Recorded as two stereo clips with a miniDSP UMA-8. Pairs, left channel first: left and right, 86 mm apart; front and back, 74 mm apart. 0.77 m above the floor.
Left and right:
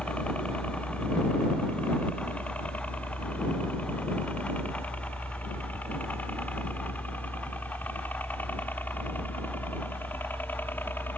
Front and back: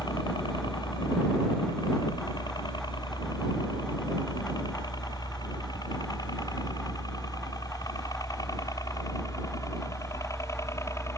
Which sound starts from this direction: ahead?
A helicopter, at 0.0 s.